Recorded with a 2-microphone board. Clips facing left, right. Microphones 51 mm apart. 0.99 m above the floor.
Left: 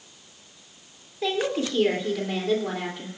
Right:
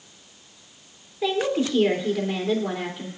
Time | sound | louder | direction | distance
1.2 | a woman speaking | right 2 dB | 5° right (ahead or behind) | 3 m